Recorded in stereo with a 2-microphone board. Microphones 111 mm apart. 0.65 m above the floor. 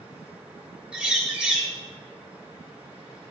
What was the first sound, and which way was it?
A bird, 10° right (ahead or behind).